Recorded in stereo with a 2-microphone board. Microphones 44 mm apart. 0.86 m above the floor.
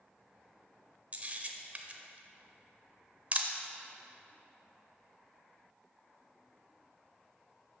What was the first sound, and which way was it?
A camera shutter, 35° right (ahead or behind).